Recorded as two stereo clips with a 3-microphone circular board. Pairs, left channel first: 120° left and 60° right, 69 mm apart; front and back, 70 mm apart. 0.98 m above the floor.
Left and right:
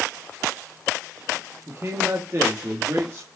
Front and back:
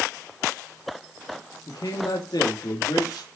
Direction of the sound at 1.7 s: 10° right.